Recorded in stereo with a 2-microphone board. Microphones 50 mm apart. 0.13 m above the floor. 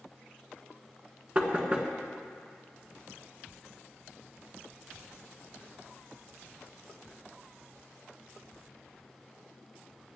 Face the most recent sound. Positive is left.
turn(degrees=-30)  # may be behind; listen again after turning